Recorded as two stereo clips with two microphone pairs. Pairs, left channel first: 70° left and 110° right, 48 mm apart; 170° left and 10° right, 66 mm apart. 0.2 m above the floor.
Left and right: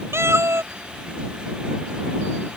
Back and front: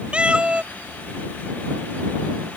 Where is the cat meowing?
85° right.